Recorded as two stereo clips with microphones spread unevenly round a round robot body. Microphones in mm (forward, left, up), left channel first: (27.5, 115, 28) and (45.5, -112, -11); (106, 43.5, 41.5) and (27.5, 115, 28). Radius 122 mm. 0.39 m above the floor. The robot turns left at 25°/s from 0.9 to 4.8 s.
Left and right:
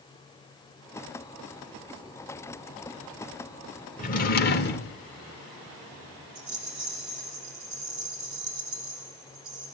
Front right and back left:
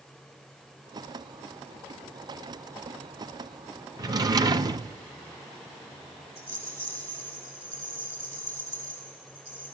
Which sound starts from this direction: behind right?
A rattle, at 6.3 s.